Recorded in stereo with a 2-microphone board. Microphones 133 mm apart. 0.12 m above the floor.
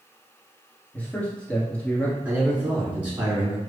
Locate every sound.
0.9 s a man speaking: 10° left (ahead or behind), 1.6 m
2.2 s a man speaking: 10° right (ahead or behind), 1.7 m